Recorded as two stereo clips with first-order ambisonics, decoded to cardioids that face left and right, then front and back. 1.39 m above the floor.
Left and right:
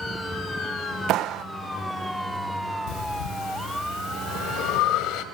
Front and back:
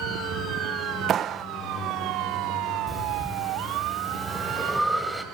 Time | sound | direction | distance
1.1 | a clap | 125° right | 0.6 m
2.9 | breathing | 90° left | 1.8 m